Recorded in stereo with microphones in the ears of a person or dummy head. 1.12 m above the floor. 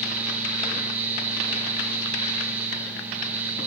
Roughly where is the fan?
Centre.